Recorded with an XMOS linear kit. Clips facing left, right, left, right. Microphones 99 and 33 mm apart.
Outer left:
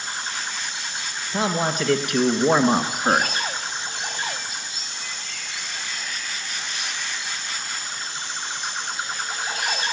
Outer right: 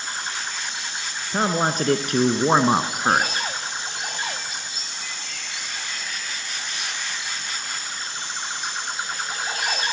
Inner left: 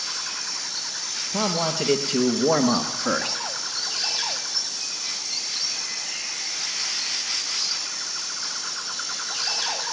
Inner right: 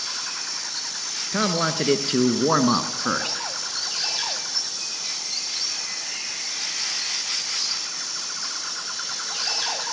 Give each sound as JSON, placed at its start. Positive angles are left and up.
{"t": 1.3, "sound": "a man speaking", "side_deg": -50, "distance_m": 3.0}